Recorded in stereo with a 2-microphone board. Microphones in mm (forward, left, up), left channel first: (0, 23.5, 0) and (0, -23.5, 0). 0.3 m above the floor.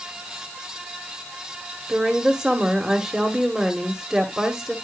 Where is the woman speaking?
15° right (ahead or behind), 1.1 m.